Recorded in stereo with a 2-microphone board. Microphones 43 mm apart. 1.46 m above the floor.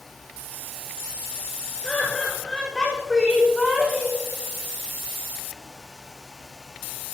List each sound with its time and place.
1.8 s laughter: 20° left (ahead or behind), 4.5 m; by 4.2 s centre (ahead or behind), 3 m